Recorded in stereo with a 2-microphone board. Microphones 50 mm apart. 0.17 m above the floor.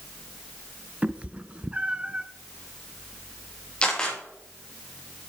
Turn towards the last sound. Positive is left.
turn(degrees=20)  # may be behind; listen again after turning